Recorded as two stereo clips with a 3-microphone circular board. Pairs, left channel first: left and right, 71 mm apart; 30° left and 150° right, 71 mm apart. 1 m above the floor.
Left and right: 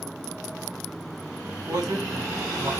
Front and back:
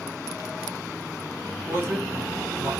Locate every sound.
1.7 s a man speaking: 100° right, 1.5 m